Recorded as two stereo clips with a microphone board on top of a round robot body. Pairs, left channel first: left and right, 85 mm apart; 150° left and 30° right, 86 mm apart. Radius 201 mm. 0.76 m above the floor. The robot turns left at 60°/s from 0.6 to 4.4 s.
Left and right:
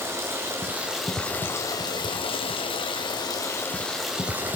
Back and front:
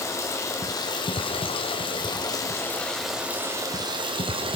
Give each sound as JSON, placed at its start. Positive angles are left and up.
{"t": 0.0, "sound": "running water", "azimuth_deg": -155, "distance_m": 2.5}